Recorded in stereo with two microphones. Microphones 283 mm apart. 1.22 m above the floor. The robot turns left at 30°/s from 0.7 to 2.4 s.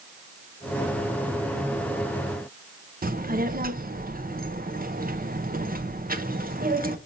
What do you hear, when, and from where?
3.0 s a child speaking: 30° right (ahead or behind), 0.7 m